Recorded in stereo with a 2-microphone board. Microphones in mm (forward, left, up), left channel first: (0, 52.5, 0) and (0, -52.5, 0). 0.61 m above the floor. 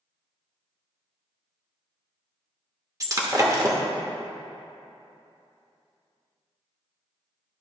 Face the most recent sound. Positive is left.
turn(degrees=-35)  # may be behind; listen again after turning